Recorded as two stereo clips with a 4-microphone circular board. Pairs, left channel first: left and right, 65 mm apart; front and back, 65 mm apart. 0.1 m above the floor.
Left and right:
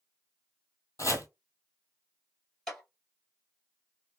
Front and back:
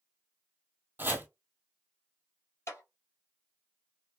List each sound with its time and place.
1.0 s chopping: 125° left, 0.6 m
2.7 s a clap: 10° left, 1.8 m